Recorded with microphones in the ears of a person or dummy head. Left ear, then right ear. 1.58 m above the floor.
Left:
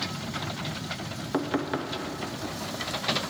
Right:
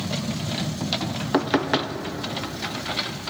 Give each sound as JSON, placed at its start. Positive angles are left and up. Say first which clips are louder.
{"t": 1.3, "sound": "knocking", "louder": "right 7 dB", "side_deg": -20, "distance_m": 0.6}